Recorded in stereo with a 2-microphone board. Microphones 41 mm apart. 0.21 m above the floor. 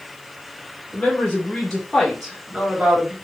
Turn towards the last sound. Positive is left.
turn(degrees=-35)  # may be behind; listen again after turning